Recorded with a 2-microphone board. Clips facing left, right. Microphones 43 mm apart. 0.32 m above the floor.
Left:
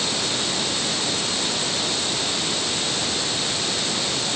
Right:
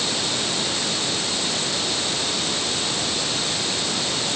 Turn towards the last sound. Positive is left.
No sound to turn to.